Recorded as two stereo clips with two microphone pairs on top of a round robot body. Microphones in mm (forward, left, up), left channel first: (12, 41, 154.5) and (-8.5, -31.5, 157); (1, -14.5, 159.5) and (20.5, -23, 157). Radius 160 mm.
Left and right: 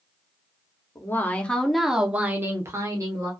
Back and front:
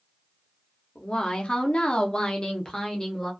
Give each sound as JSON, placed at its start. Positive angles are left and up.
{"t": 0.9, "sound": "a woman speaking", "azimuth_deg": 110, "distance_m": 1.0}